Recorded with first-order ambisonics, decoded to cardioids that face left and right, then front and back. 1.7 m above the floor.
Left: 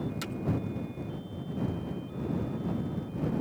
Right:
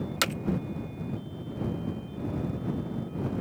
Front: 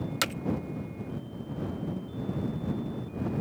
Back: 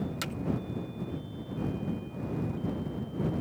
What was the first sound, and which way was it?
Hammering, 55° right.